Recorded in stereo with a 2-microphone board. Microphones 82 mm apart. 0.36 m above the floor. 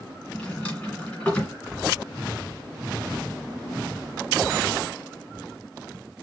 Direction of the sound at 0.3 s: 15° left (ahead or behind).